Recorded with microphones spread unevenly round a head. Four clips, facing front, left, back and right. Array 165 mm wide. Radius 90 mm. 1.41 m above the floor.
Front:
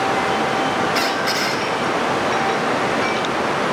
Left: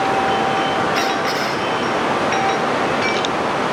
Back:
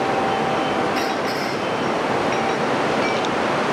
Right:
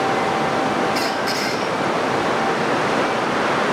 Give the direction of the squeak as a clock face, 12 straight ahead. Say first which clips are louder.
Left 2 dB, front 1 dB; 11 o'clock.